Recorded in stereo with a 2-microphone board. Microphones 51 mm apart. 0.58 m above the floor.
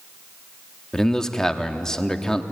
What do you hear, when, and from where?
0.9 s a man speaking: 10° left (ahead or behind), 1.1 m